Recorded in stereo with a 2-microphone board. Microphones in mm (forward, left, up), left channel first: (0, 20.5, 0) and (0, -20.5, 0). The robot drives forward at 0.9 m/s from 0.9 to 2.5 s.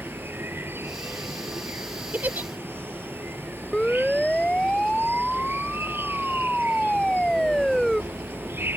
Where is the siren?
20° left (ahead or behind); by 8.0 s 10° left (ahead or behind).